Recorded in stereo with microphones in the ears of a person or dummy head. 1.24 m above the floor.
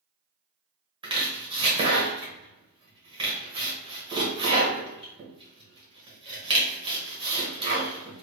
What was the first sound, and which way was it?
Chopping, 30° right (ahead or behind).